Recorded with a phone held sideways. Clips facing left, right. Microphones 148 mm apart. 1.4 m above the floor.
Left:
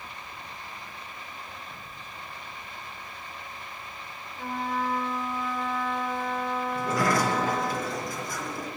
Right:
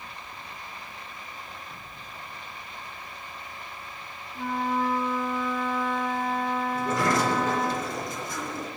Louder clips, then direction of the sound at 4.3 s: Right 3 dB; 75° right (ahead or behind).